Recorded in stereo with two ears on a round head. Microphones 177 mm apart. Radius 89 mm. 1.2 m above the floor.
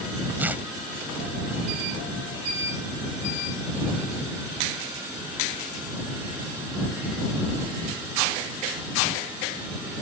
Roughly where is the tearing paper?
Centre.